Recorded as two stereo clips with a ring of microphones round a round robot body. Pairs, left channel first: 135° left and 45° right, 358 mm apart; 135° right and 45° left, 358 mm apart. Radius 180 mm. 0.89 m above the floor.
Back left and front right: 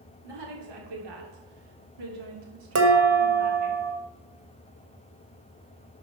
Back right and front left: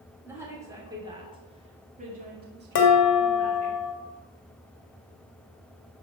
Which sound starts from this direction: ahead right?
A woman speaking, at 0.2 s.